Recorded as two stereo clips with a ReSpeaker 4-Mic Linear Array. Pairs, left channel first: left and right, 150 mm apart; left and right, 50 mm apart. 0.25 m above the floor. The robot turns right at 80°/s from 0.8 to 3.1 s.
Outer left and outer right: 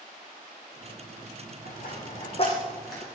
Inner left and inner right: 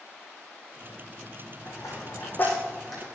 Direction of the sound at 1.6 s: 80° left.